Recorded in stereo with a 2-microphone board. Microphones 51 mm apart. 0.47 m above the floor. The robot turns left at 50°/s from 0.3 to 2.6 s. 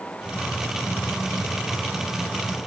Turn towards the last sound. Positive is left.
No sound to turn to.